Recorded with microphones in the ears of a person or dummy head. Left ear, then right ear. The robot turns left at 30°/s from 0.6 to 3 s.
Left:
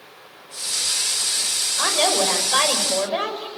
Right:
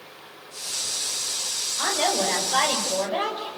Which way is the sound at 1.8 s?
70° left.